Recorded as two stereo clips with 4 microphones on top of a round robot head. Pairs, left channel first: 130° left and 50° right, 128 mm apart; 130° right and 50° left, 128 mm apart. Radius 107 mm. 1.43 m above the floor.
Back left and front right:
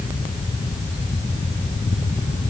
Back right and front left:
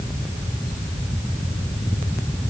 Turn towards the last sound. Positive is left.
No sound to turn to.